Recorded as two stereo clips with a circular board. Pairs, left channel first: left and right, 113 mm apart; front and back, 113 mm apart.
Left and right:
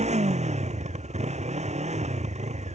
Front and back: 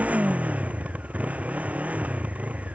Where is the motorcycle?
100° right.